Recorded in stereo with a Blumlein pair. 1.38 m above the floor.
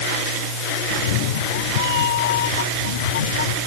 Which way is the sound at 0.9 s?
50° left.